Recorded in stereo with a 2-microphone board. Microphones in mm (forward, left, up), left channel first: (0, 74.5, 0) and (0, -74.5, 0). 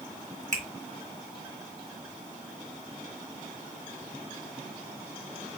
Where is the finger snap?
55° right (ahead or behind), 1.3 m.